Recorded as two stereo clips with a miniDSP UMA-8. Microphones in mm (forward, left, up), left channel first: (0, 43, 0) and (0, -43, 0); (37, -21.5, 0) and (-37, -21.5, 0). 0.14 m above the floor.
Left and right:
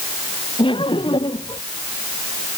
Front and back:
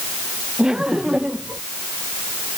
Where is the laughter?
100° left.